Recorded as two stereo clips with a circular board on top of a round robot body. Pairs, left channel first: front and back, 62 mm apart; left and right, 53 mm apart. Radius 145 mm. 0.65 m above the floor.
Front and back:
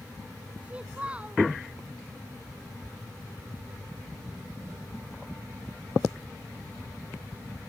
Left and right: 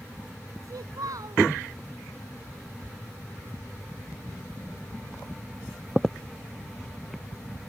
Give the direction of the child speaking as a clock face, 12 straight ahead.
4 o'clock.